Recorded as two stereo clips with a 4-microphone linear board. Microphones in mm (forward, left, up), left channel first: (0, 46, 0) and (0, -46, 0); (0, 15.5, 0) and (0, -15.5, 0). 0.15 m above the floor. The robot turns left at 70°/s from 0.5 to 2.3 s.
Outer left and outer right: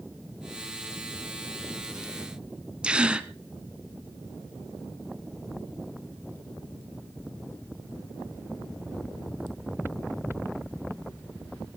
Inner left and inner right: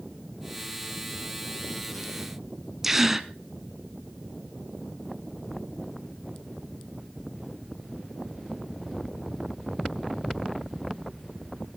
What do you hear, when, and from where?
2.8 s a gasp: 10° right (ahead or behind), 0.9 m